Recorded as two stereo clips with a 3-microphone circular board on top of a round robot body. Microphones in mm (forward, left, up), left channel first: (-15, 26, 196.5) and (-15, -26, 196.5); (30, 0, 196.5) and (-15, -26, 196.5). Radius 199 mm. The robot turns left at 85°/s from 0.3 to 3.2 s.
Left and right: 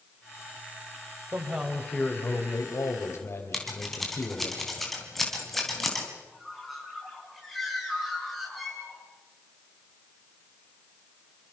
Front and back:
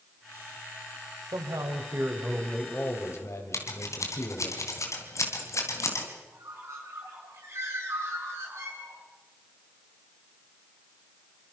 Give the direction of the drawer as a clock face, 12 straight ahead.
No drawer in this recording.